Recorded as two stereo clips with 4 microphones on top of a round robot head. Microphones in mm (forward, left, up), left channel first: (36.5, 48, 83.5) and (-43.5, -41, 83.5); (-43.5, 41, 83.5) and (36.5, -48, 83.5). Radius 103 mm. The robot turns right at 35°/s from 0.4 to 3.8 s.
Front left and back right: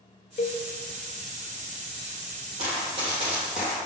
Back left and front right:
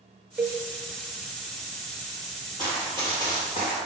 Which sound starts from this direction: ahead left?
A cowbell, at 0.4 s.